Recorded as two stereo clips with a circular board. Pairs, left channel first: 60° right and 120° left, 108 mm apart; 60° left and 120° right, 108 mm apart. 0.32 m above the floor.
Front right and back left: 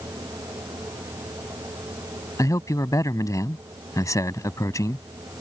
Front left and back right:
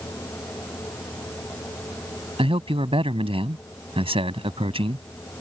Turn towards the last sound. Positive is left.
turn(degrees=-115)